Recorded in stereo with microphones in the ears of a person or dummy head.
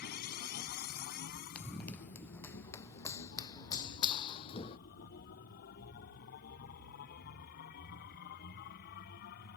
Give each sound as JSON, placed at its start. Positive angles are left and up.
{"t": 0.0, "sound": "a machine running", "side_deg": 55}
{"t": 1.6, "sound": "running footsteps", "side_deg": 5}